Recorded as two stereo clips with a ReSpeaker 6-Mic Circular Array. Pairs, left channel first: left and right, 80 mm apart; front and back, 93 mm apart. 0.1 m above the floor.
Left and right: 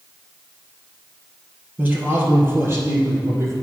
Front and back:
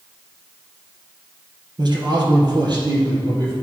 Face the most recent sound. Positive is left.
turn(degrees=-140)